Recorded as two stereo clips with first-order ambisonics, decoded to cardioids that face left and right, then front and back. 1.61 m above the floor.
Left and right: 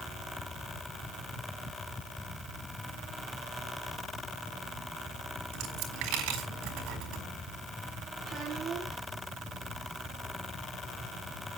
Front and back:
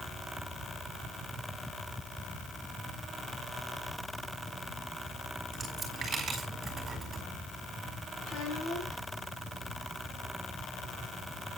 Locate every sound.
5.5 s a dropped coin: 110° right, 4.5 m
8.2 s a child speaking: 30° right, 9 m